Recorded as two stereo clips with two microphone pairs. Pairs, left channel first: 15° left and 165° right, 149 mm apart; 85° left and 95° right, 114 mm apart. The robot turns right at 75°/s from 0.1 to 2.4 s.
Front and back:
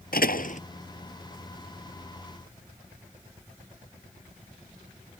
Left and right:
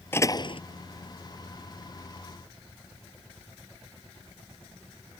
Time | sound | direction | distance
0.1 | a door slam | 15° left | ?